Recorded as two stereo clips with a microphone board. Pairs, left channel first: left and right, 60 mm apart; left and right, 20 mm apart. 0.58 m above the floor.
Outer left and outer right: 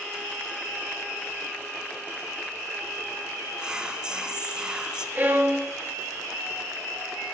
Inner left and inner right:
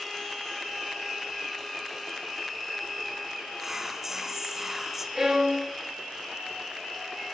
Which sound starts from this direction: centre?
Whispering, at 3.6 s.